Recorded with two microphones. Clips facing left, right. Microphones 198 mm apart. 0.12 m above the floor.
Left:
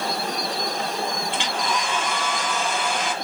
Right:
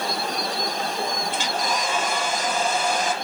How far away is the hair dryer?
About 1.4 m.